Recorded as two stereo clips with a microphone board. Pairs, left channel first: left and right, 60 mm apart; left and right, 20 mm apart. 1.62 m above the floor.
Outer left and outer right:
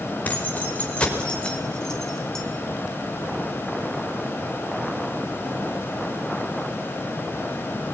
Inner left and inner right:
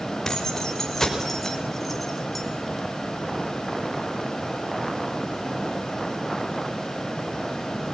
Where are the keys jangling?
30° left (ahead or behind), 4.5 m; by 2.4 s 5° left (ahead or behind), 4 m.